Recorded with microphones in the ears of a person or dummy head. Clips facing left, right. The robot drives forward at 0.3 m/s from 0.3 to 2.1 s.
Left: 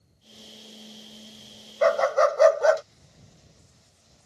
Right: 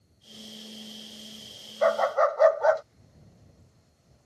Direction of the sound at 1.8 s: 45° left (ahead or behind).